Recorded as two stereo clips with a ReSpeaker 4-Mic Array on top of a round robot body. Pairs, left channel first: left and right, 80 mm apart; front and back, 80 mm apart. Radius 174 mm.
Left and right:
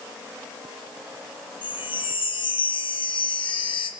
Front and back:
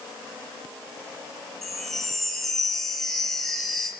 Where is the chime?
90° left, 3 m.